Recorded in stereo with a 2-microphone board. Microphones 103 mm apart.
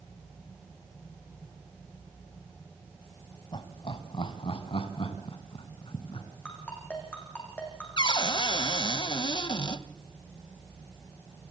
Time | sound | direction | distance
3.5 | laughter | 55° left (ahead or behind) | 1.9 m
6.5 | a ringtone | 15° left (ahead or behind) | 7 m
8.0 | a cupboard door | 50° left (ahead or behind) | 0.8 m